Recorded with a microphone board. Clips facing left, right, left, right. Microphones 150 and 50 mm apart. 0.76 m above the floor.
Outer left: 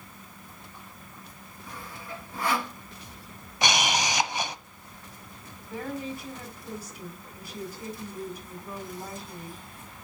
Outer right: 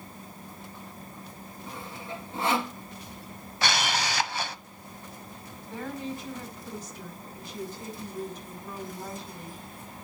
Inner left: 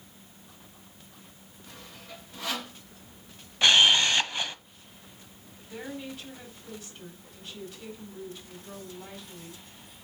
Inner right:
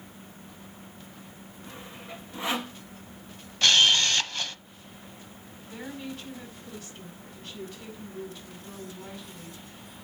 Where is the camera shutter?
15° left (ahead or behind), 0.8 m.